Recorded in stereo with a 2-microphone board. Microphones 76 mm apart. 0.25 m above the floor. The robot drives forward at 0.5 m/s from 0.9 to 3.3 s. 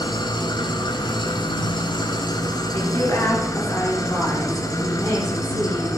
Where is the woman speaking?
35° left (ahead or behind), 4.5 m; by 5.9 s 40° left (ahead or behind), 4.5 m.